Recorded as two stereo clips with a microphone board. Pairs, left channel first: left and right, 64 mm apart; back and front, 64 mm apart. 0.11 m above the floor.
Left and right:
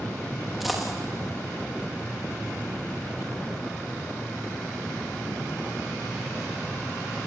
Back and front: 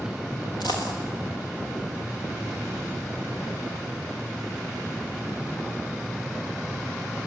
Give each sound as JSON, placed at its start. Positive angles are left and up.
{"t": 0.6, "sound": "a dropped coin", "azimuth_deg": -175, "distance_m": 7.5}